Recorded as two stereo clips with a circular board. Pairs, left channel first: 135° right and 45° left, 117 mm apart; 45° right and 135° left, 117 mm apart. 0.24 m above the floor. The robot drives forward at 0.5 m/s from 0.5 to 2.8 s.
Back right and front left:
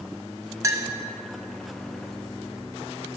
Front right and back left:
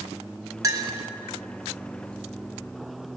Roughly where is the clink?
Left.